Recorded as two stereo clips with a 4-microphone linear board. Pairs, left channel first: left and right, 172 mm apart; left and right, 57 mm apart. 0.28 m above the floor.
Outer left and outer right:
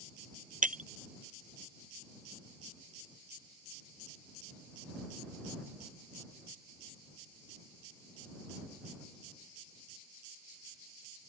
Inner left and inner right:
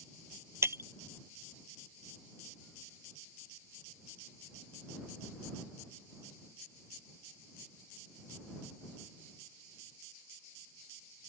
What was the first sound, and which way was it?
Breaking glass, 50° right (ahead or behind).